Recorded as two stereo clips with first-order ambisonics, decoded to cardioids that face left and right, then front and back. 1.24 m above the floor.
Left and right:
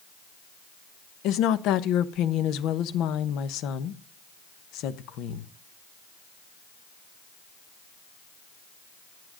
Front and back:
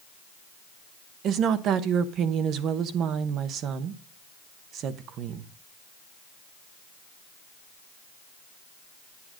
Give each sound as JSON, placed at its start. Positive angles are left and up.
{"t": 1.2, "sound": "a woman speaking", "azimuth_deg": 130, "distance_m": 0.9}